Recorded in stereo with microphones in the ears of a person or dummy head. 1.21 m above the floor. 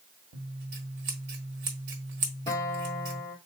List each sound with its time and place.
0.3 s scissors: 55° right (ahead or behind), 1.4 m
2.5 s a guitar: 20° left (ahead or behind), 1.0 m